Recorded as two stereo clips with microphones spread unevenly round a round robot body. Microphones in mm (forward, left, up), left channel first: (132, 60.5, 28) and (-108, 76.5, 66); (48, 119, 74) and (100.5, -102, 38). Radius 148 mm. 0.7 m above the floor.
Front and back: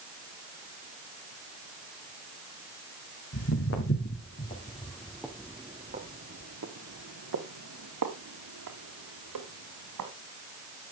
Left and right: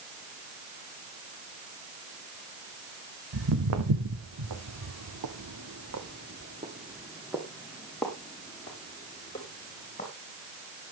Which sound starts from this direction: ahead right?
Footsteps, at 3.3 s.